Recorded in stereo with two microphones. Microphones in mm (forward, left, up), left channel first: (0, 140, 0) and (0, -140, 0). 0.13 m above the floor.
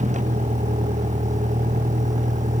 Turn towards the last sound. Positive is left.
turn(degrees=-25)  # may be behind; listen again after turning